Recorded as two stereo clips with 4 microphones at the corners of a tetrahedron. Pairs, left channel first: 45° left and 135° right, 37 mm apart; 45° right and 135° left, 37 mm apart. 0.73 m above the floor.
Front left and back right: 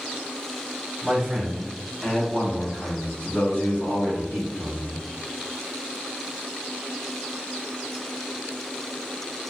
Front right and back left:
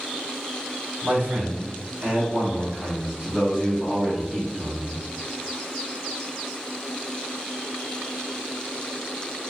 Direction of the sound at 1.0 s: 140° left.